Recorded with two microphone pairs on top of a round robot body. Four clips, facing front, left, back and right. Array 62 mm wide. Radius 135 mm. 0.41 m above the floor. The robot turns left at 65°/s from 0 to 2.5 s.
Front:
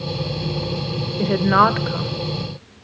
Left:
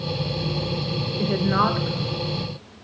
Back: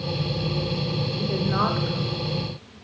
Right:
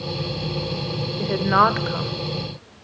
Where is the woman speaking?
5° right, 1.9 m; by 2.1 s 65° right, 1.9 m.